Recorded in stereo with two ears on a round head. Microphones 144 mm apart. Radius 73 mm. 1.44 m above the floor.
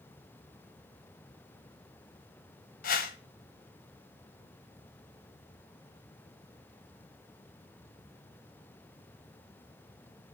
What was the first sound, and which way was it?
A whoosh, 60° left (ahead or behind).